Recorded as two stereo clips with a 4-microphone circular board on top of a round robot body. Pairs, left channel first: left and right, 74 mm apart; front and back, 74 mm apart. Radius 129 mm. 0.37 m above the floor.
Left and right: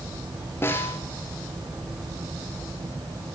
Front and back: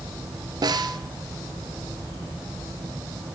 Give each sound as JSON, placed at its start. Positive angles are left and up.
{"t": 0.6, "sound": "a snare drum", "azimuth_deg": 150, "distance_m": 2.5}